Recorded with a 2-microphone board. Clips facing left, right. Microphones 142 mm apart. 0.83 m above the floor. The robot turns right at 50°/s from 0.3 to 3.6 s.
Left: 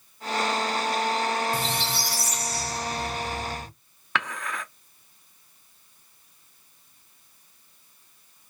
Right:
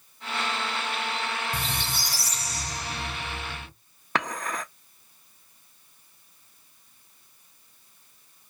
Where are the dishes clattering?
40° right (ahead or behind), 0.7 m.